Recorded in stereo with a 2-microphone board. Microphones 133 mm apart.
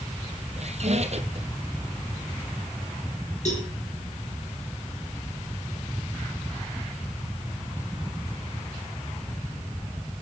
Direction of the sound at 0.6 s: 55° right (ahead or behind).